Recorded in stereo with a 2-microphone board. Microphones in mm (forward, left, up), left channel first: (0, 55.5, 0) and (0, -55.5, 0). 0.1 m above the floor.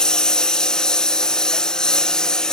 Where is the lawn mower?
5° left (ahead or behind).